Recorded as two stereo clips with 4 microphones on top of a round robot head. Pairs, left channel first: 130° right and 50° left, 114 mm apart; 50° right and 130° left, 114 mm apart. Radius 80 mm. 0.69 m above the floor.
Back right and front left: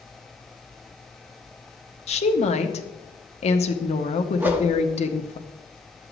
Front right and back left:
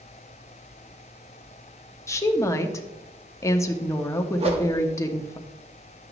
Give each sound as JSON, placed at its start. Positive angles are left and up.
{"t": 2.1, "sound": "a woman speaking", "azimuth_deg": -115, "distance_m": 1.1}
{"t": 4.4, "sound": "a whoosh", "azimuth_deg": 120, "distance_m": 1.3}